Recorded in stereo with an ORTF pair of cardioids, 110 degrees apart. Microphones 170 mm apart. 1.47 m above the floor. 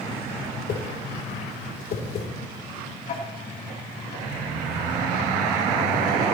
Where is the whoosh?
55° left, 3 m.